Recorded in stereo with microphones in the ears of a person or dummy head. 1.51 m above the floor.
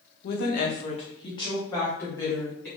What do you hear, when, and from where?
0.2 s a woman speaking: 70° left (ahead or behind), 0.7 m; by 2.7 s 10° left (ahead or behind), 1.8 m